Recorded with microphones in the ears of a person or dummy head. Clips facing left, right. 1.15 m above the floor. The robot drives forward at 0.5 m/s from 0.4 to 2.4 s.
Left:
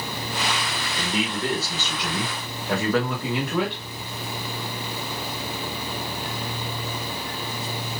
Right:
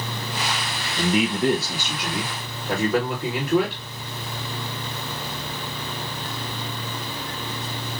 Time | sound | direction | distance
1.0 | a man speaking | 20° right (ahead or behind) | 0.6 m